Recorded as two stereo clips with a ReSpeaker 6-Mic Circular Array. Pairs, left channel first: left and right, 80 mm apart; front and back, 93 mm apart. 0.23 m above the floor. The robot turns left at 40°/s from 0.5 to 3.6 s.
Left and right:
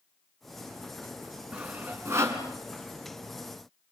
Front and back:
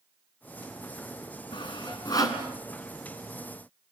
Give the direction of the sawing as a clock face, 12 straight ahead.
12 o'clock.